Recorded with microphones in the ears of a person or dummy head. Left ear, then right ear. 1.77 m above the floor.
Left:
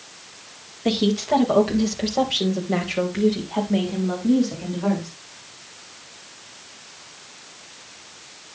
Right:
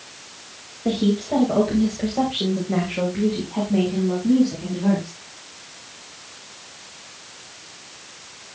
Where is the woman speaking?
40° left (ahead or behind), 3.5 m; by 5.1 s 45° left (ahead or behind), 5 m.